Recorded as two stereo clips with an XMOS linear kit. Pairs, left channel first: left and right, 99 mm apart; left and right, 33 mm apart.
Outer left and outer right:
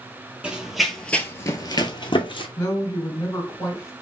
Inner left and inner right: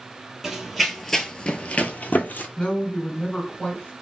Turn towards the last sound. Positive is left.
turn(degrees=35)  # may be behind; listen again after turning